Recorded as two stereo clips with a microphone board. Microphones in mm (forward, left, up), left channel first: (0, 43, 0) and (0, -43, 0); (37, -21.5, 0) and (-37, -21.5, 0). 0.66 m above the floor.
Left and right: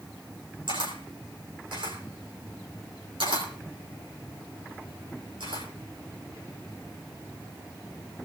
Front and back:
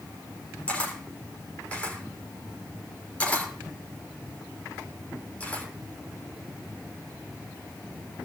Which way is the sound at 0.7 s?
75° right.